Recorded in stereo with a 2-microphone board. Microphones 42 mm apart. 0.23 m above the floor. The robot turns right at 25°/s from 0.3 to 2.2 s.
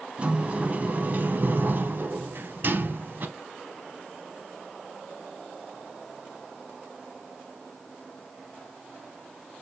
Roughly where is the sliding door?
Behind right.